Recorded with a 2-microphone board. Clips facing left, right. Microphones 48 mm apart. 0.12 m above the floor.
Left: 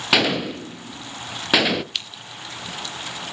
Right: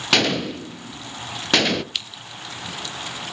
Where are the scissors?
5° right (ahead or behind), 1.0 m.